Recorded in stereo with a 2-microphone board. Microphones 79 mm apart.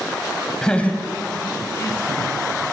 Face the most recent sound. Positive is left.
turn(degrees=50)  # may be behind; listen again after turning